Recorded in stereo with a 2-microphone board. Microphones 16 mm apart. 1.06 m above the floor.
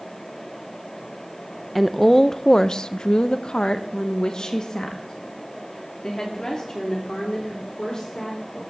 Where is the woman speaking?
5° left (ahead or behind), 0.7 m; by 8.6 s 45° left (ahead or behind), 4 m.